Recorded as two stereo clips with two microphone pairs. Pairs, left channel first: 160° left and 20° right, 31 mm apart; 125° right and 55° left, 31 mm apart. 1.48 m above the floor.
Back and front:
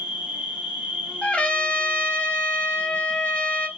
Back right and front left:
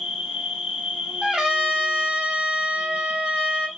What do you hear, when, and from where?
0.0 s an insect: 5° right, 1.6 m
1.2 s a trumpet: 120° left, 1.9 m